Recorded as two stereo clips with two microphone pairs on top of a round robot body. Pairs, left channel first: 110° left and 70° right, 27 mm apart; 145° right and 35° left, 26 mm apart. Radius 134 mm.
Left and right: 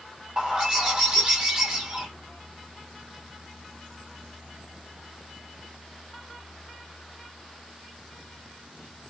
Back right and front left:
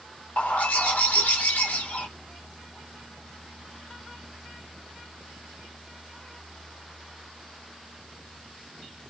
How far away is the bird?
About 1.1 m.